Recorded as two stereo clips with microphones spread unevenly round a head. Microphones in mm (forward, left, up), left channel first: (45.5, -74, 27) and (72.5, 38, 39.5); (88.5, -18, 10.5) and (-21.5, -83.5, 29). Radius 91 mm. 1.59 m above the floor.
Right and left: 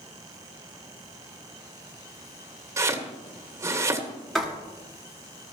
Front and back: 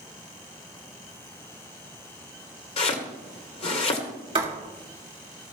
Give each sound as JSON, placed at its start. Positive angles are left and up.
{"t": 2.8, "sound": "chopping", "azimuth_deg": 50, "distance_m": 1.5}
{"t": 4.3, "sound": "writing", "azimuth_deg": 165, "distance_m": 1.8}